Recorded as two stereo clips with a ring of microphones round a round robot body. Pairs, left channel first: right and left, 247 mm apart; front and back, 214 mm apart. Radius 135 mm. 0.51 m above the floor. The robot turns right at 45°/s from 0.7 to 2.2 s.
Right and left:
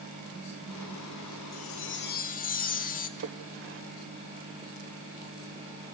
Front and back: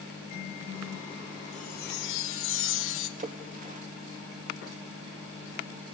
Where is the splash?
125° left, 1.3 m.